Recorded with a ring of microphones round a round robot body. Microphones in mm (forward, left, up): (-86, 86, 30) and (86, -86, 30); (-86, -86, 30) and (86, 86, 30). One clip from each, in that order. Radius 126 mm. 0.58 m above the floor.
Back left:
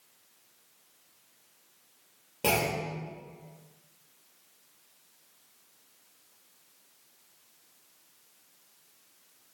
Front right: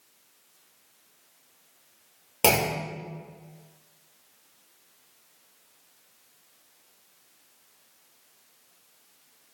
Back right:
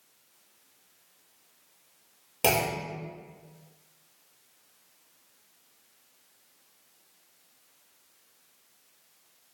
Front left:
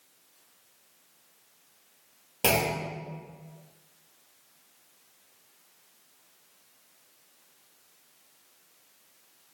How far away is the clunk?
About 2 m.